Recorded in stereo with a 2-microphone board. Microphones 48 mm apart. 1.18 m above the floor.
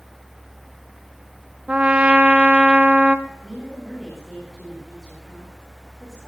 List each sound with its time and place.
1.7 s a trumpet: 30° right (ahead or behind), 1.2 m
3.3 s a woman speaking: 5° left (ahead or behind), 9 m